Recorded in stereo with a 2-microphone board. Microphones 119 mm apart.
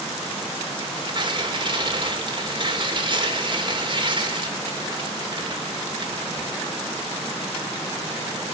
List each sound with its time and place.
0.8 s tearing paper: 45° right (ahead or behind), 3.5 m